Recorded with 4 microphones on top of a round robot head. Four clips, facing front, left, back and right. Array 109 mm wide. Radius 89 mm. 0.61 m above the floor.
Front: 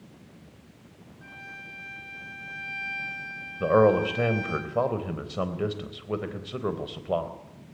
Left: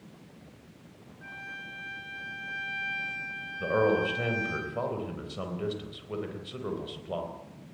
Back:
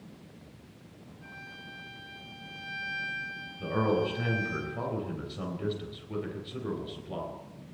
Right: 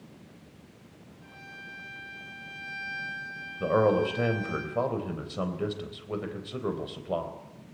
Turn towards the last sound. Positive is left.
turn(degrees=-15)